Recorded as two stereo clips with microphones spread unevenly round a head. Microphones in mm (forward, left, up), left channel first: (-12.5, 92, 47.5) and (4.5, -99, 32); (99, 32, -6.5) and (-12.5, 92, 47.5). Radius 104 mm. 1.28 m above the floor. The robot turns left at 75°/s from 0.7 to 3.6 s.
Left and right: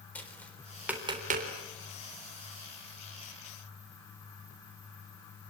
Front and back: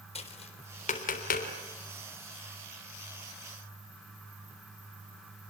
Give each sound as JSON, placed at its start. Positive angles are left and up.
{"t": 0.1, "sound": "tapping", "azimuth_deg": 10, "distance_m": 4.0}